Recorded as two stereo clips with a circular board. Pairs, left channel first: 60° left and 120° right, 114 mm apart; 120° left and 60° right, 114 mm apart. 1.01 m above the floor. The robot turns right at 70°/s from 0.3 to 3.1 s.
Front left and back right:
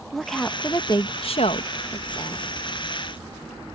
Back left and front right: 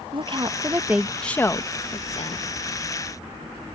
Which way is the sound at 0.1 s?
30° right.